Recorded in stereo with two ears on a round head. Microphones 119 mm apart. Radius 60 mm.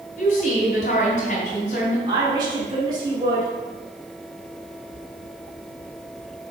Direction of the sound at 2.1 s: 30° right (ahead or behind).